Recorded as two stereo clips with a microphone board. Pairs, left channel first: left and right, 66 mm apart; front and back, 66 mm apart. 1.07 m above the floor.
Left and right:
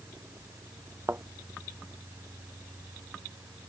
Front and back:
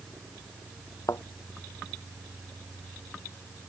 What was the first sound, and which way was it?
A thud, 35° right.